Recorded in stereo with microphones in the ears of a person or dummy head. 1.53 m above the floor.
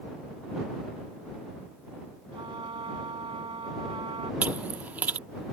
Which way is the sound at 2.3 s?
25° right (ahead or behind).